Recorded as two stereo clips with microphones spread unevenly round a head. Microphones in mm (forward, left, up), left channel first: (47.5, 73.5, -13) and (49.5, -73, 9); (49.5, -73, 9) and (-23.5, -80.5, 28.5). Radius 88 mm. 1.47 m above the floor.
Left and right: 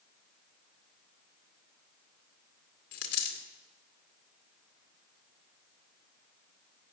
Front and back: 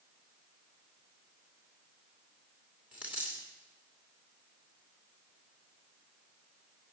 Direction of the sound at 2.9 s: 110° left.